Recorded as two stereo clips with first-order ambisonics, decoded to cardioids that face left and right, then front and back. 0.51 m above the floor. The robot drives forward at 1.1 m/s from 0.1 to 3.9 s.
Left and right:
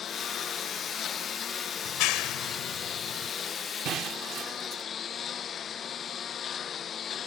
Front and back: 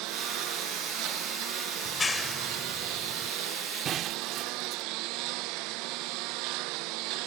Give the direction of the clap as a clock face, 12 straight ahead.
10 o'clock.